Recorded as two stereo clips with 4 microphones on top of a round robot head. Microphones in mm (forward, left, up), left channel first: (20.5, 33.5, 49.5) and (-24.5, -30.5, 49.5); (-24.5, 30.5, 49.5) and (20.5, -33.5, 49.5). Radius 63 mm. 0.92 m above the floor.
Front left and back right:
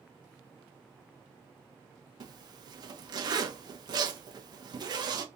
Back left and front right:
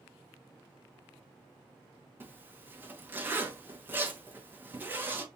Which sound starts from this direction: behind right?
A zipper, at 2.2 s.